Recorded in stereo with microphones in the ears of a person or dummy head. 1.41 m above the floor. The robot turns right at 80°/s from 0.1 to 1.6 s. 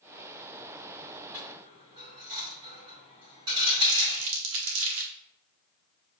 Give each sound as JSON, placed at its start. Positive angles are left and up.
{"t": 1.3, "sound": "a dropped coin", "side_deg": -5, "distance_m": 1.1}
{"t": 3.9, "sound": "crumpling", "side_deg": -75, "distance_m": 1.2}